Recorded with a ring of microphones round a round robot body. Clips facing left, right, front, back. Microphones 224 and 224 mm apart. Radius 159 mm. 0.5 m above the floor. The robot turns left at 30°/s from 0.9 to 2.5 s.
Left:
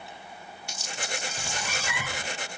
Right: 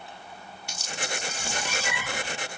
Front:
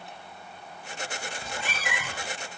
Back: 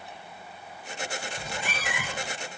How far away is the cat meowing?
About 2.0 m.